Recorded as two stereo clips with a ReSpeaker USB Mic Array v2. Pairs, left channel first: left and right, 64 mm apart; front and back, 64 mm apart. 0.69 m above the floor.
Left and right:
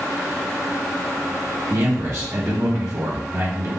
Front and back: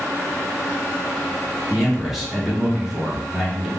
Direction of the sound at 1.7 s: 95° right.